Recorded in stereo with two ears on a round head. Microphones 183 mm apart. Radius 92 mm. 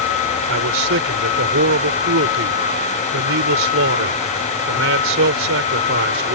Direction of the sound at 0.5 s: 75° right (ahead or behind).